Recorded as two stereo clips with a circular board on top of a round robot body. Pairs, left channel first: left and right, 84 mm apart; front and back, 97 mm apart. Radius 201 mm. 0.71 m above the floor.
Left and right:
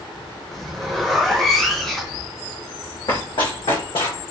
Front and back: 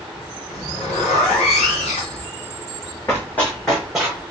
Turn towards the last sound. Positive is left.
turn(degrees=100)